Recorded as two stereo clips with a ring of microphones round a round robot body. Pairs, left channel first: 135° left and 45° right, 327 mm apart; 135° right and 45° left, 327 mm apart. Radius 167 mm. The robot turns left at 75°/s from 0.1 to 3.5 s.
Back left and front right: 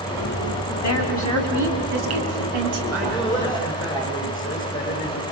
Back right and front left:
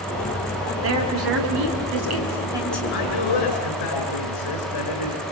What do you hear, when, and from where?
0.8 s a woman speaking: 95° left, 5.5 m; by 2.8 s 55° right, 5.5 m
2.9 s a man speaking: 105° right, 6.5 m; by 5.2 s 150° right, 6.5 m